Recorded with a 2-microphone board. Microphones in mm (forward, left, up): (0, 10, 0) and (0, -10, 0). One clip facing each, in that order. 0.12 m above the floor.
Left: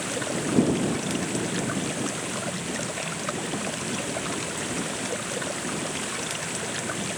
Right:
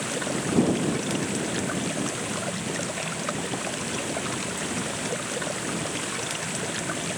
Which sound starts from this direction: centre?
Running water, at 0.0 s.